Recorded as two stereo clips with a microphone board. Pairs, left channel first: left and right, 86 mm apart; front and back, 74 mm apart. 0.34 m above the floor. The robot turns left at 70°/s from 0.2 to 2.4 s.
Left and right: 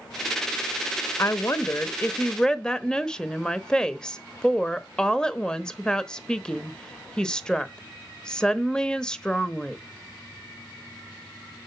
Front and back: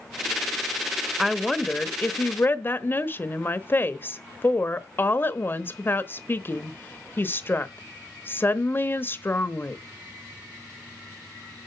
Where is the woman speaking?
100° left, 0.9 m; by 9.8 s 15° left, 0.9 m.